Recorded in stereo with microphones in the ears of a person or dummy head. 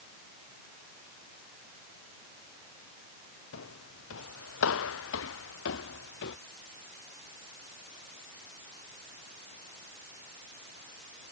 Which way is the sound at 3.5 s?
75° left (ahead or behind).